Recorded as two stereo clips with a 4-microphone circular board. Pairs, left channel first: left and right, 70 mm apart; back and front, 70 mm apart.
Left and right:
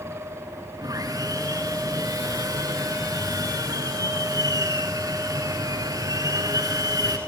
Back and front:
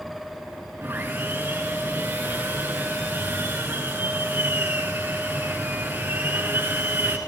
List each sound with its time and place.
0.8 s sawing: 65° right, 4 m